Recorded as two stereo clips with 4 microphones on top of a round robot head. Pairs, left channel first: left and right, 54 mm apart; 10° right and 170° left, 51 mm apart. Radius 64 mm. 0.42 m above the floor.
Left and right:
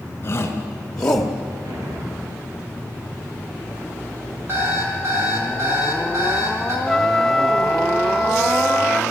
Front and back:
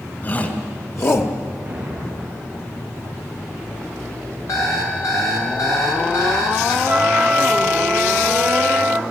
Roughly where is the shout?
Ahead left.